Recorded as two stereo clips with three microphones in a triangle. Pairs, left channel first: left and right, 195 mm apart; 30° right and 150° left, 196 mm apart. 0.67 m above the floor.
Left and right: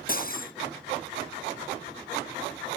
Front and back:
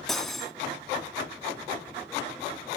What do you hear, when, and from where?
0.1 s cutlery clinking: 60° left, 0.6 m